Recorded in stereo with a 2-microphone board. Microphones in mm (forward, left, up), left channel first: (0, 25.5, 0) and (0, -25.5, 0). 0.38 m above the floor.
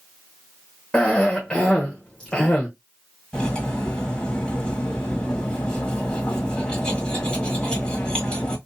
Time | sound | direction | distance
0.9 | a cough | 20° left (ahead or behind) | 0.9 m
3.3 | cutlery clinking | 20° left (ahead or behind) | 1.5 m